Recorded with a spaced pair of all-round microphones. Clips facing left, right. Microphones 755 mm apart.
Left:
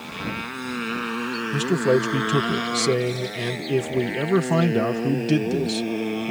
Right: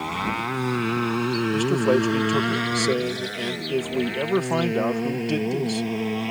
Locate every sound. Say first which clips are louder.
0.0 s a motorcycle: right 3 dB; 85° right; by 6.3 s 30° right (ahead or behind)
1.5 s a man speaking: left 2 dB; 50° left (ahead or behind)